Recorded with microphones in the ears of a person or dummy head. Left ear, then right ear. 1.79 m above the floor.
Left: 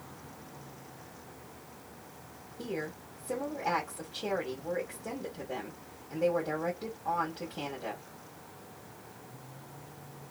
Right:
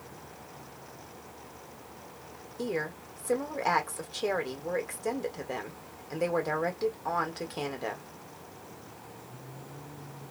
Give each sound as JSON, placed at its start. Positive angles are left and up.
{"t": 2.6, "sound": "a woman speaking", "side_deg": -75, "distance_m": 1.4}